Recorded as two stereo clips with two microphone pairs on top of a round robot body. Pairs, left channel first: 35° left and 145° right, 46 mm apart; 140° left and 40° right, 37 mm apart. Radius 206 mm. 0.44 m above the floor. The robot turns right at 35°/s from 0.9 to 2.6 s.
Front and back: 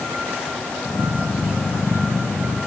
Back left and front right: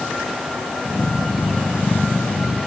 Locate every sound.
Only background noise.